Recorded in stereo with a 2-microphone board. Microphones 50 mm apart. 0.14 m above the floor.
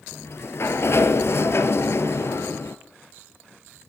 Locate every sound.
0.1 s a sliding door: 60° left (ahead or behind), 0.9 m